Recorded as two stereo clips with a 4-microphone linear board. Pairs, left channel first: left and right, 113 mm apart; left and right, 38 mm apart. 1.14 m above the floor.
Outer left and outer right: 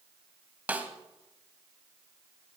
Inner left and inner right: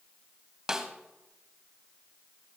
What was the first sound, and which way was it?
A snare drum, 15° right (ahead or behind).